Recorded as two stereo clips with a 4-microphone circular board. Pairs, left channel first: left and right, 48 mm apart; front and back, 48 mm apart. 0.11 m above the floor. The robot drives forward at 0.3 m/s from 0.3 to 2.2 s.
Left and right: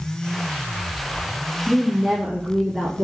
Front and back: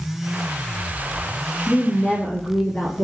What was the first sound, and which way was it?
A woman speaking, 10° right.